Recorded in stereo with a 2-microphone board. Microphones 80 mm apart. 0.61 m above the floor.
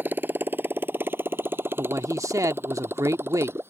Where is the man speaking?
45° right (ahead or behind).